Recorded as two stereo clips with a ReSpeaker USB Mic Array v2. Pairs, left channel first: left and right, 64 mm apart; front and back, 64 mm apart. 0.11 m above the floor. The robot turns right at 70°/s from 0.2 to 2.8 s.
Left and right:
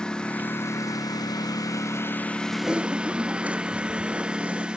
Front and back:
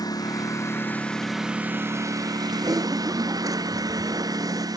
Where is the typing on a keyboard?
Straight behind; by 4.7 s 160° right.